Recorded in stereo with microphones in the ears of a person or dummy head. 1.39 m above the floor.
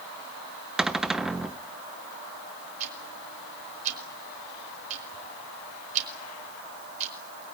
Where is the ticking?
40° right (ahead or behind), 4.5 m.